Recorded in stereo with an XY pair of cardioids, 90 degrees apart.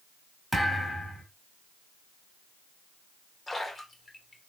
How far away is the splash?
About 1.5 m.